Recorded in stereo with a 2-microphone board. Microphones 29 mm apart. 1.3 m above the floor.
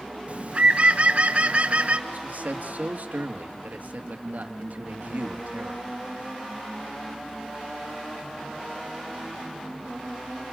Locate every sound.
0.3 s a bird: 45° right (ahead or behind), 1.3 m
2.1 s a man speaking: 70° right (ahead or behind), 2 m